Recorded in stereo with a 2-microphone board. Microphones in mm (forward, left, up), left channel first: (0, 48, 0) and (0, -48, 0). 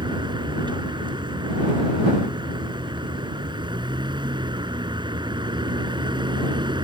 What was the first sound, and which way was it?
A vehicle, 55° right (ahead or behind).